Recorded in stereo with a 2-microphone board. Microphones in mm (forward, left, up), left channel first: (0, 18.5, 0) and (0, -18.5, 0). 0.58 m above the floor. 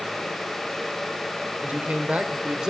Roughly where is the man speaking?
Right.